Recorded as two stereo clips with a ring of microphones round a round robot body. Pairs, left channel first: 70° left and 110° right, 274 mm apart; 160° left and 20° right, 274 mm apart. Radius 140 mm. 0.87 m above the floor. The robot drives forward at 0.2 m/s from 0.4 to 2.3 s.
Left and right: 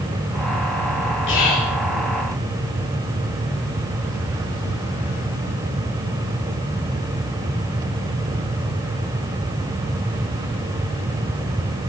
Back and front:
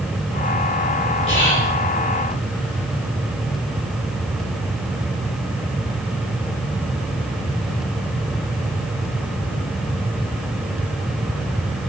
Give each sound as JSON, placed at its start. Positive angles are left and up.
{"t": 1.3, "sound": "whispering", "azimuth_deg": 85, "distance_m": 2.0}